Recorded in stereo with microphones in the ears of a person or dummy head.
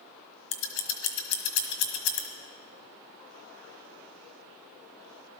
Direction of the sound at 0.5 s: 60° left (ahead or behind).